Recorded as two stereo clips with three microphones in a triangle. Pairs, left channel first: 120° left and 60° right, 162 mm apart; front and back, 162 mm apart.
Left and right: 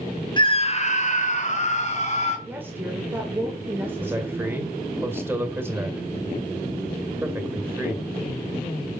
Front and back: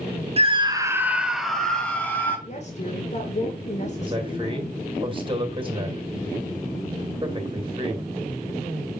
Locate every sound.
0.4 s a scream: 160° left, 1.1 m; by 2.4 s 80° left, 3 m
2.5 s a woman speaking: 15° left, 1.8 m
4.0 s a man speaking: 130° right, 2 m